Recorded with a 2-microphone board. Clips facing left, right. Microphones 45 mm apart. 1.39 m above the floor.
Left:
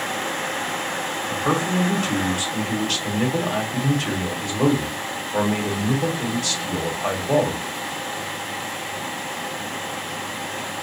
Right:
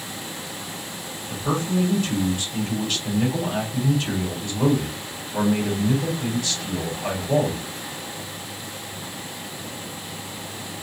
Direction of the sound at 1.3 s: 70° left (ahead or behind).